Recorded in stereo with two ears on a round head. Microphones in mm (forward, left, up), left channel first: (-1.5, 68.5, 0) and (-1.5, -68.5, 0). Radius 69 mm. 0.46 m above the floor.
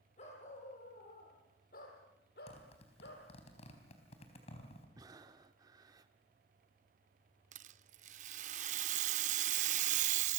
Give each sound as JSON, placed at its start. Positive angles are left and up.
{"t": 0.2, "sound": "a dog barking", "side_deg": 45, "distance_m": 5.5}
{"t": 2.5, "sound": "a zipper", "side_deg": 45, "distance_m": 4.0}
{"t": 5.0, "sound": "breathing", "side_deg": -25, "distance_m": 1.1}
{"t": 7.5, "sound": "a rattle", "side_deg": -50, "distance_m": 0.6}